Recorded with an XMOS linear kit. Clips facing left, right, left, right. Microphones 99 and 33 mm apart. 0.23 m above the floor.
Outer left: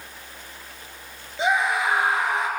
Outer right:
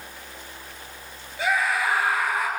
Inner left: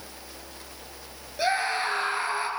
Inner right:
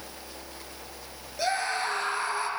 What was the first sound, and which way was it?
A scream, 20° left (ahead or behind).